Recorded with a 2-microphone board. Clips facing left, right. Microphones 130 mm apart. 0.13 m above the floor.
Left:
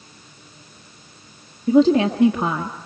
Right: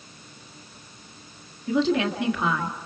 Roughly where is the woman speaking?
Left.